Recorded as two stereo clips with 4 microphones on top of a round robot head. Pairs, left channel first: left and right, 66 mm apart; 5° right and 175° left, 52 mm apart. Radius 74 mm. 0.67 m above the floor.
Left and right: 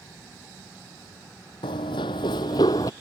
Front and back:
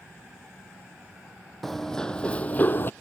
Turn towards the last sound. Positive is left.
turn(degrees=40)